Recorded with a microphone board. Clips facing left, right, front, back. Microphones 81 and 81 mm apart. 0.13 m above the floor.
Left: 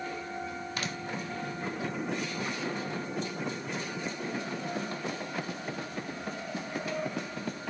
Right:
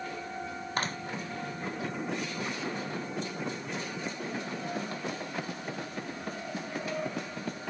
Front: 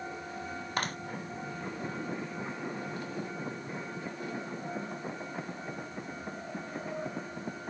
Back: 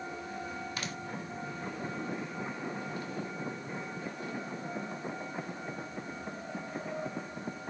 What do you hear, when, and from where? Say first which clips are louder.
0.8 s a clap: right 6 dB, front 6 dB; 40° right